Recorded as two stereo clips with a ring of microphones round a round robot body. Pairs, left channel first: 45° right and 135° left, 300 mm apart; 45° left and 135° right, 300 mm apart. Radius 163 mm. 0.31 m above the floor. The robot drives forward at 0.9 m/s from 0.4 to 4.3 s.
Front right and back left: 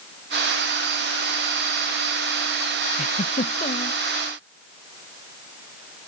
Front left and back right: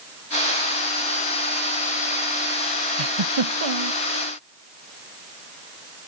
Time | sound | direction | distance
3.0 | a giggle | 115° right | ?